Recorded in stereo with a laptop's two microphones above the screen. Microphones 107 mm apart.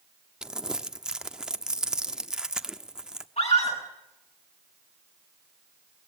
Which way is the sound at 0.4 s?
5° right (ahead or behind).